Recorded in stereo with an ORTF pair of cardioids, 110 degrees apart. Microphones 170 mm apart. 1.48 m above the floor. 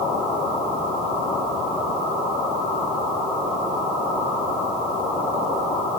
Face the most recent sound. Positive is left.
No sound to turn to.